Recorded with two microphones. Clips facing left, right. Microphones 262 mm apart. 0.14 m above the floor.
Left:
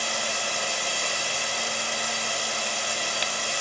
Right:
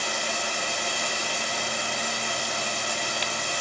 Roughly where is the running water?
Right.